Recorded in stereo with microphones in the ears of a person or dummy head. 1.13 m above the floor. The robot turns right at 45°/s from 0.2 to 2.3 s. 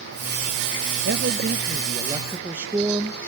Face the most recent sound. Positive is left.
turn(degrees=-10)